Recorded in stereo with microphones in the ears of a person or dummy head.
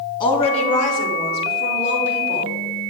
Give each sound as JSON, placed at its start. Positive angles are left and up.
{"t": 0.2, "sound": "a woman speaking", "side_deg": 25, "distance_m": 2.5}